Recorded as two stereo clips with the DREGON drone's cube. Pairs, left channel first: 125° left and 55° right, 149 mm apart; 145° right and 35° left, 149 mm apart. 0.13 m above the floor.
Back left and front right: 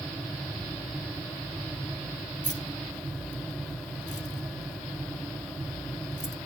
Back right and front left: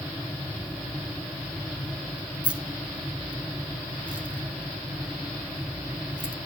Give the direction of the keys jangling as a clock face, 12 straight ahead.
8 o'clock.